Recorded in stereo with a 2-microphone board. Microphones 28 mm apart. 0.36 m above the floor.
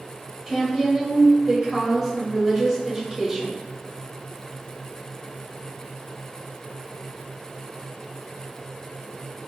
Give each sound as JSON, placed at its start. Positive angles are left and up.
{"t": 0.5, "sound": "a woman speaking", "side_deg": -15, "distance_m": 1.2}